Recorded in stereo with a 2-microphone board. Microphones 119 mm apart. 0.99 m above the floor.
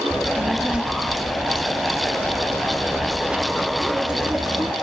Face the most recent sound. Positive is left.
turn(degrees=-10)  # may be behind; listen again after turning